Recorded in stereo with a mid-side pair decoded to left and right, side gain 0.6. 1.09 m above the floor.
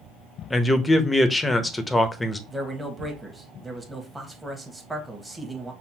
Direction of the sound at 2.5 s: 10° right.